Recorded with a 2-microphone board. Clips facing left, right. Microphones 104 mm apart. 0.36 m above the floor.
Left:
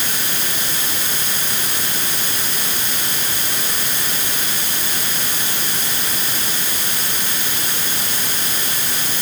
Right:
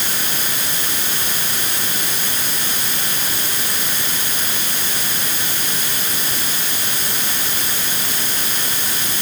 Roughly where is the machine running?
I don't hear a machine running.